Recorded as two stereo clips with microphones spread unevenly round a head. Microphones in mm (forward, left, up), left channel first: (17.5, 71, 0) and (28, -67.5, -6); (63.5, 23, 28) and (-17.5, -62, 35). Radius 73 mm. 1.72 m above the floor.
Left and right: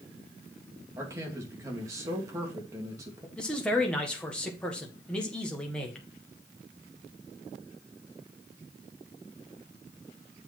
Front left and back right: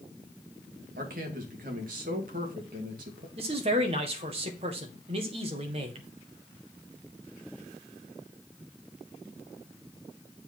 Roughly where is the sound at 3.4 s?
Behind.